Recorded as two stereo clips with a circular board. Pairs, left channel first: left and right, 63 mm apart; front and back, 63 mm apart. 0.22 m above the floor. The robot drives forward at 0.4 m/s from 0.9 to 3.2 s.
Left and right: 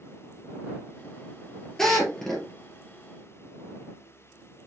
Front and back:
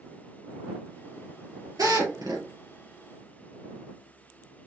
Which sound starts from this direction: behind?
A drill, at 1.8 s.